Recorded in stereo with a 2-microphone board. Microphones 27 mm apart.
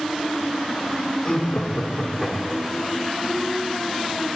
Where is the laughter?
40° left (ahead or behind), 1.7 m; by 2.9 s 15° right (ahead or behind), 1.8 m.